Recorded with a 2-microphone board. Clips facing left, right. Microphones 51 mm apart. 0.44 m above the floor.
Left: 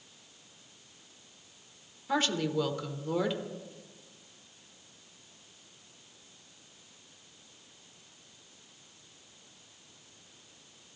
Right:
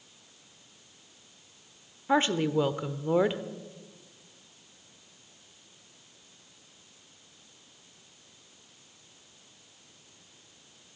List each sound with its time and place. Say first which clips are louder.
2.1 s a woman speaking: right 5 dB; 30° right (ahead or behind), 0.9 m